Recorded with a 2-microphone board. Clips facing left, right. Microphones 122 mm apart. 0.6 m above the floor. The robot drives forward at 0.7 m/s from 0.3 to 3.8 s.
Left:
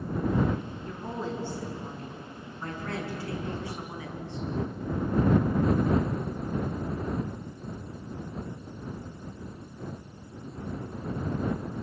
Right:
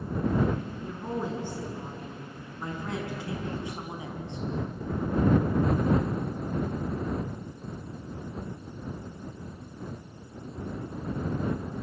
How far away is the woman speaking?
About 6.5 m.